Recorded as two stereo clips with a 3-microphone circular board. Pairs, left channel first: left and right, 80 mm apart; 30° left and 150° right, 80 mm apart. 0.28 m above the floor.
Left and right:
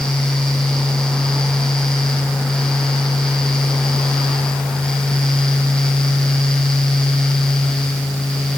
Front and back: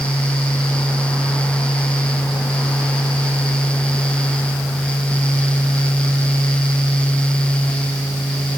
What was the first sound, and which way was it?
Only background noise.